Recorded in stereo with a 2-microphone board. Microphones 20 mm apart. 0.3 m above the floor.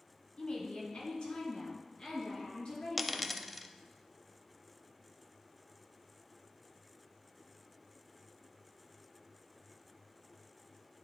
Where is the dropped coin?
5° left (ahead or behind), 0.5 m.